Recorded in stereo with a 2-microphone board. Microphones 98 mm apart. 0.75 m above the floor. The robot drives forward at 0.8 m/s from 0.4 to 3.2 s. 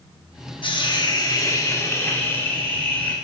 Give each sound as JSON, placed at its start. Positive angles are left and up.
{"t": 0.6, "sound": "a hiss", "side_deg": 55, "distance_m": 0.9}